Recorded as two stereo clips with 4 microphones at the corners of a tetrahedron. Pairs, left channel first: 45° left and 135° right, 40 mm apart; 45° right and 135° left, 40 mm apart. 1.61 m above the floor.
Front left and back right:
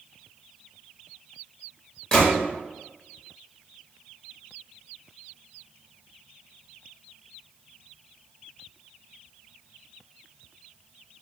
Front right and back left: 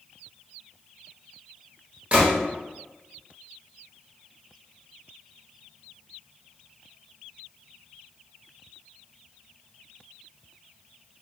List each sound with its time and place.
2.1 s a gunshot: 110° left, 1.0 m